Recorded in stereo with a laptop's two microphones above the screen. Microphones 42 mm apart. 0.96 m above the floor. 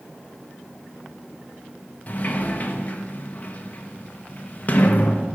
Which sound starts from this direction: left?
A sliding door, at 2.1 s.